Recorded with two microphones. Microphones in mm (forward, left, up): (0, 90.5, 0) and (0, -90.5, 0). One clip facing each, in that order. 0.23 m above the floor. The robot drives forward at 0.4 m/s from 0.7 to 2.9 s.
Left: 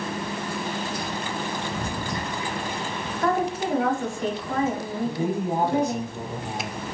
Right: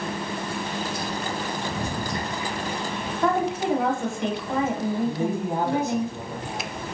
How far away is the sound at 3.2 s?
About 1.1 m.